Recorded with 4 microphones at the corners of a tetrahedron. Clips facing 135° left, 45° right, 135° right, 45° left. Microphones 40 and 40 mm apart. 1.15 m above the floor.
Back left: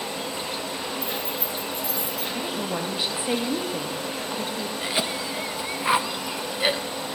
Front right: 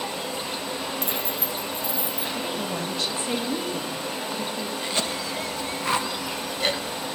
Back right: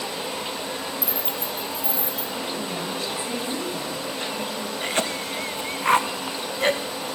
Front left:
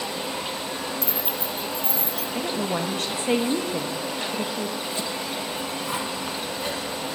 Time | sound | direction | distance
1.0 | keys jangling | 55° right | 0.9 m
2.4 | a woman speaking | 60° left | 2 m
4.8 | a cough | 155° right | 1.2 m